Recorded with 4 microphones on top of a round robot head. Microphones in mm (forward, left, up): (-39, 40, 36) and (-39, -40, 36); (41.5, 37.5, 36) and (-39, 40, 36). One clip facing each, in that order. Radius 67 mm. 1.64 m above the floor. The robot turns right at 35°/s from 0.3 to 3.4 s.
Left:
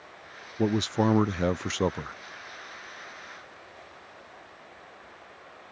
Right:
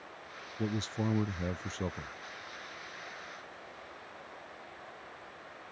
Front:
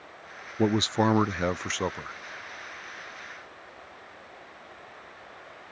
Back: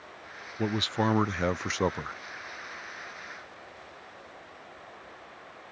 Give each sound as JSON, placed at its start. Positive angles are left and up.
{"t": 0.6, "sound": "a man speaking", "azimuth_deg": 55}